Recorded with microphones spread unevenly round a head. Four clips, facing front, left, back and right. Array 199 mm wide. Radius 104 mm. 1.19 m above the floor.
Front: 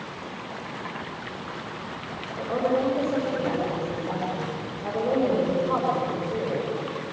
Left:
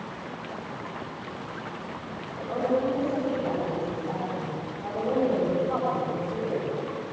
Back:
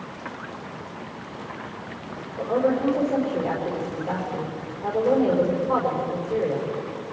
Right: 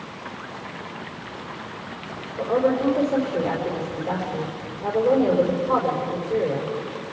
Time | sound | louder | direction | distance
2.4 | a woman speaking | right 5 dB, back 2 dB | 120° right | 5 m